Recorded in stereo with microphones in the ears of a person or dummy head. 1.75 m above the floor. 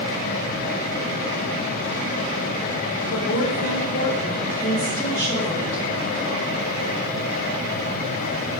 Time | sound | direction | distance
3.1 | a woman speaking | 70° left (ahead or behind) | 1.3 m